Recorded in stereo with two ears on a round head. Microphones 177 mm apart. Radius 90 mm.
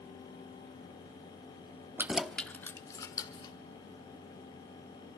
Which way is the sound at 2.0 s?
10° right (ahead or behind).